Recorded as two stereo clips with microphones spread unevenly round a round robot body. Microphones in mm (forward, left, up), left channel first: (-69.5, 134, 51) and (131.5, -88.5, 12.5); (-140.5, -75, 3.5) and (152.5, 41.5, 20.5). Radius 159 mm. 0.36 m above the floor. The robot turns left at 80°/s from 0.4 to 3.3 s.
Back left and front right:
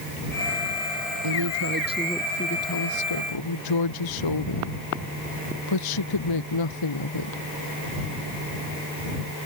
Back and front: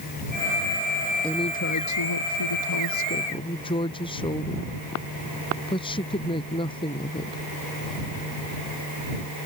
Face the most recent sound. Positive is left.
turn(degrees=125)